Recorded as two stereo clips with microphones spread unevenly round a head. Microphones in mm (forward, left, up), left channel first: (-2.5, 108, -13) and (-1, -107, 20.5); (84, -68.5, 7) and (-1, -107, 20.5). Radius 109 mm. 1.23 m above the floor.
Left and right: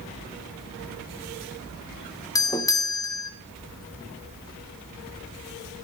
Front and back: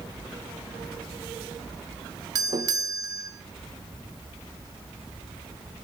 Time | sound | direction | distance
2.4 | a doorbell | 150° left | 0.7 m